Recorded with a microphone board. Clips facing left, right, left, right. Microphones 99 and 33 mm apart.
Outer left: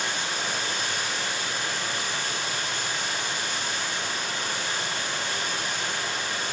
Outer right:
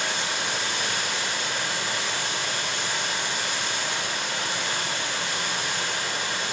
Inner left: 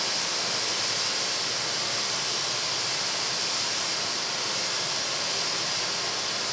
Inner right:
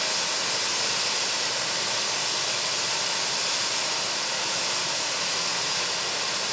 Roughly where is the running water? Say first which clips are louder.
Outer right 1 dB, inner right 2 dB; right.